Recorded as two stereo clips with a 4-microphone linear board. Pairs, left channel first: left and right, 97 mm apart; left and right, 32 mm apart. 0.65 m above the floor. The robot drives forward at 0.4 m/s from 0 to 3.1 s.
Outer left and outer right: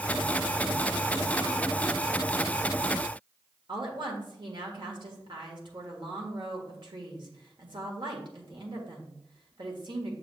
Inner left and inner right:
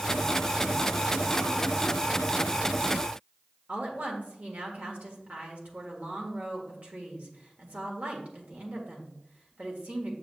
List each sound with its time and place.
3.7 s a woman speaking: 55° right (ahead or behind), 1.6 m